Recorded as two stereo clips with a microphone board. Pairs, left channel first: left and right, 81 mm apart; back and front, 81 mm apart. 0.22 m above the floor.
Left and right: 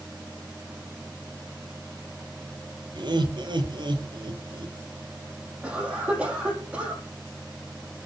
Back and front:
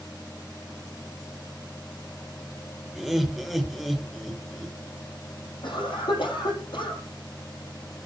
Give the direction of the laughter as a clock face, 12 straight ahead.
3 o'clock.